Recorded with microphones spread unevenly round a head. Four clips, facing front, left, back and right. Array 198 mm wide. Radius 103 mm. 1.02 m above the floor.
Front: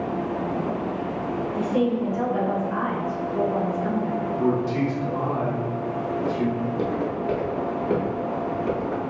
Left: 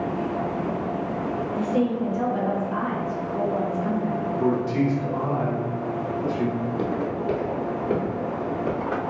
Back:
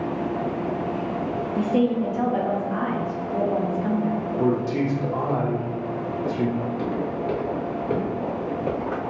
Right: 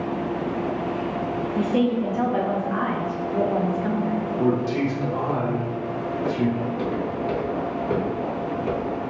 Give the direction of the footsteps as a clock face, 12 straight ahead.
11 o'clock.